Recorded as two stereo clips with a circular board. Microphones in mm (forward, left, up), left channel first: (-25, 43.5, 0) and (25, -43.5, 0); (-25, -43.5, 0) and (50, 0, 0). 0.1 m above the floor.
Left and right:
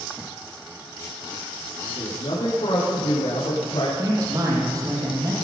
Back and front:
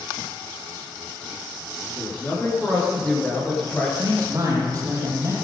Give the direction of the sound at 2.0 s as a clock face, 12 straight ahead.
8 o'clock.